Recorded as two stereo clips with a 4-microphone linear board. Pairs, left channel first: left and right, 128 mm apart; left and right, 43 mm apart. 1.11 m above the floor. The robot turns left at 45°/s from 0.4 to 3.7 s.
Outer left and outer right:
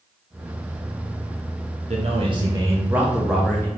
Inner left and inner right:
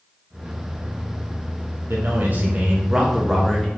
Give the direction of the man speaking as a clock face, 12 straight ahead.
4 o'clock.